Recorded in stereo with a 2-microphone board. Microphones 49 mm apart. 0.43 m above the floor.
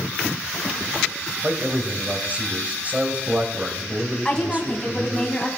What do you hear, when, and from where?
1.4 s a man speaking: 30° right (ahead or behind), 1.9 m
4.2 s a woman speaking: 15° left (ahead or behind), 2.5 m